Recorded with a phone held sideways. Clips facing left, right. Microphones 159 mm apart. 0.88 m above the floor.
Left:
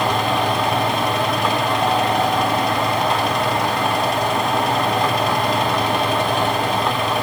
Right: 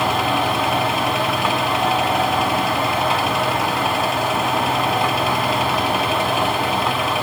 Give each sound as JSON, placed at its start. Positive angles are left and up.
{"t": 0.0, "sound": "a fan", "side_deg": -5, "distance_m": 2.0}